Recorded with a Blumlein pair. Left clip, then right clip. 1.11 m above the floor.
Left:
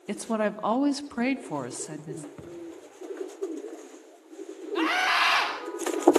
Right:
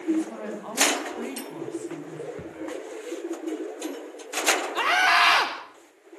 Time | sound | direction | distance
0.1 | a woman speaking | 55° left | 2 m
2.4 | a thud | 5° right | 5.5 m
4.8 | a scream | 15° right | 4 m